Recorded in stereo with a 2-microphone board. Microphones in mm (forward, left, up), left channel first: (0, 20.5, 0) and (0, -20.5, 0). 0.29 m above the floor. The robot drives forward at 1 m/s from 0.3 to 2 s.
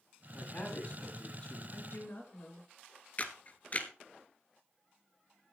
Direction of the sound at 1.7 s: 65° left (ahead or behind).